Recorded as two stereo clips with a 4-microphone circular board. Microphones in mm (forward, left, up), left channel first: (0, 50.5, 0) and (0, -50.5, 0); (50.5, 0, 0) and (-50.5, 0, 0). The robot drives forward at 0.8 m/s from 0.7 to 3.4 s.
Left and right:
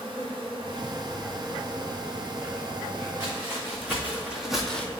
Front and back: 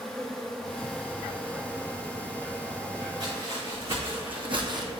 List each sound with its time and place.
0.0 s an insect: 80° right, 1.4 m; by 5.0 s 150° right, 2.5 m
3.2 s footsteps: 155° right, 3 m; by 4.9 s 155° left, 1.0 m